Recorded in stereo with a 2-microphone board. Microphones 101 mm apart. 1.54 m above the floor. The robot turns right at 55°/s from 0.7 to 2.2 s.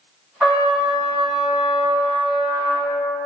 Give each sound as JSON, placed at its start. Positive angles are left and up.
{"t": 0.4, "sound": "a trumpet", "azimuth_deg": -175, "distance_m": 2.0}